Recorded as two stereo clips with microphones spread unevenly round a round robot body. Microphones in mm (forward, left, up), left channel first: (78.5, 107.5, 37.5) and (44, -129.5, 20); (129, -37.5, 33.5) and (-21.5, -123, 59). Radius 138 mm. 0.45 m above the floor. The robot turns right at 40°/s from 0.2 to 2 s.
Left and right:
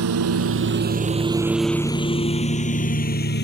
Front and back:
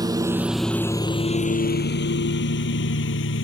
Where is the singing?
I don't hear singing.